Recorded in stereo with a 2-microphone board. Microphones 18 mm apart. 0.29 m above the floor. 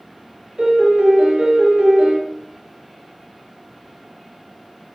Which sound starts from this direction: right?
A piano, at 0.6 s.